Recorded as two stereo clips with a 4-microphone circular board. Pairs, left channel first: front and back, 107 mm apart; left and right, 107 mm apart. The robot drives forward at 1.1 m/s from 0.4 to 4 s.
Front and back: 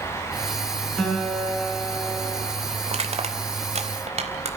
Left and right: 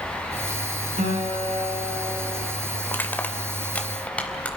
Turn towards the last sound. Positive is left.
turn(degrees=170)